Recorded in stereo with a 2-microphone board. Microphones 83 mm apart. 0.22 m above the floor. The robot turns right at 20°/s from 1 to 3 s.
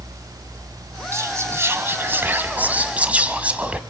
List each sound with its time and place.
1.1 s whispering: 65° right, 1.2 m; by 3.8 s 25° right, 1.2 m